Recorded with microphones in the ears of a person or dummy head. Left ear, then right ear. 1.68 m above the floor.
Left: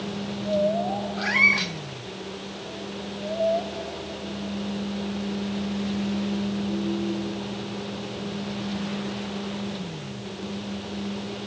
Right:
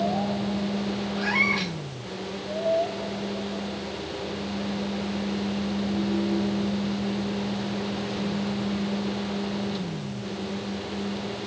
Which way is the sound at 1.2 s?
15° right (ahead or behind).